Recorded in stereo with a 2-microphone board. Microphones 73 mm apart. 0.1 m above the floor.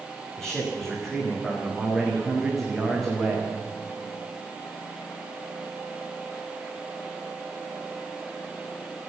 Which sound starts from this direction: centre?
A man speaking, at 0.4 s.